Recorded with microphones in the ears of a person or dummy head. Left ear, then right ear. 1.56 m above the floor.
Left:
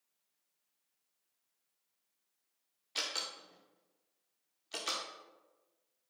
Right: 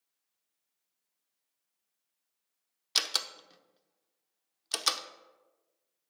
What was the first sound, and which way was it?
A door slam, 55° right (ahead or behind).